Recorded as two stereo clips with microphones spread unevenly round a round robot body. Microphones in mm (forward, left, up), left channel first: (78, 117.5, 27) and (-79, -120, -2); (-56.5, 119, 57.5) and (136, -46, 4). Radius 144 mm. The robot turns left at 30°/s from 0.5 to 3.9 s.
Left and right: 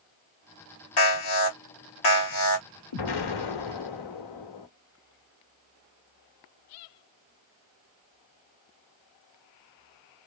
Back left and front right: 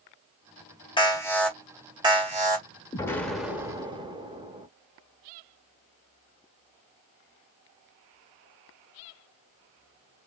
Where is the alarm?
65° left, 2.5 m; by 2.7 s 15° left, 2.5 m.